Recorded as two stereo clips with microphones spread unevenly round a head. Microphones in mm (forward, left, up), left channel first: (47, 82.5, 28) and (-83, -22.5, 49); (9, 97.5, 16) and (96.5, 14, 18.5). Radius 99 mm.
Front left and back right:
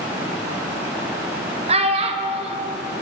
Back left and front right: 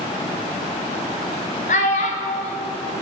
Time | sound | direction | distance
1.7 | a child speaking | 175° left | 0.5 m